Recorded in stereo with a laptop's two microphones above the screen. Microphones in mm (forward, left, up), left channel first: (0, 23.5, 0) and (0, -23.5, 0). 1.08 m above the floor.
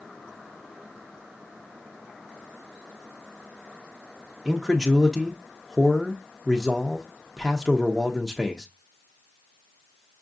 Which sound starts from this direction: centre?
A man speaking, at 4.5 s.